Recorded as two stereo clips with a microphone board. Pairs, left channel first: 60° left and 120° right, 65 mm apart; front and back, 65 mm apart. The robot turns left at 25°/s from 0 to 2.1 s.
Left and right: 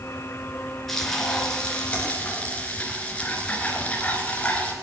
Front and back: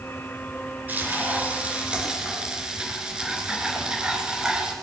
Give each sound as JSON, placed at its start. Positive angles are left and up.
{"t": 0.9, "sound": "frying", "azimuth_deg": 145, "distance_m": 2.0}